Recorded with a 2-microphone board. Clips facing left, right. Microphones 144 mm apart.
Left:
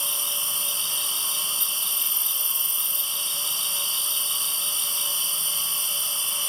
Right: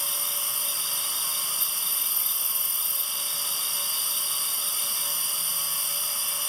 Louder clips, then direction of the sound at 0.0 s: Left 1 dB; 80° left.